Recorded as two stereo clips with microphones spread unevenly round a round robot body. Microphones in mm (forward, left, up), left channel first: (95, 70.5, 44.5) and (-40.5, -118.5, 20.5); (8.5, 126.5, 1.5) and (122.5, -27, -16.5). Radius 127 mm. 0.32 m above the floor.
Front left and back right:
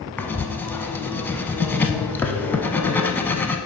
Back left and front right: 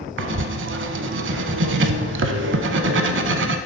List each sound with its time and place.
0.2 s writing: 25° right, 0.5 m